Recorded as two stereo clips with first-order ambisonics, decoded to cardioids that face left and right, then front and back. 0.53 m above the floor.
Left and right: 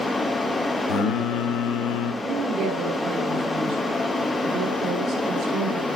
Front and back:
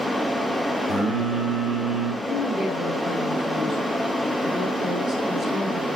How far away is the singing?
About 1.0 m.